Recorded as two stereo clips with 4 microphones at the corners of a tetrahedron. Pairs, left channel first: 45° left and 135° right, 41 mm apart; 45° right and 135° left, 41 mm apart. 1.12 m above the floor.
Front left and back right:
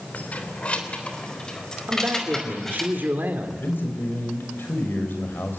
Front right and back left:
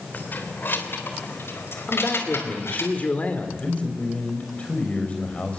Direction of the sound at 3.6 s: 15° left.